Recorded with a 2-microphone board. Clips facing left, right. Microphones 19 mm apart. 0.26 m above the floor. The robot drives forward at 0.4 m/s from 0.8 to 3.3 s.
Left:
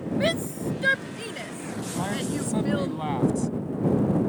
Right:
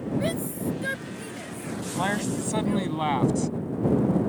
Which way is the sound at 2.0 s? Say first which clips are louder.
Right 2 dB; 40° right (ahead or behind).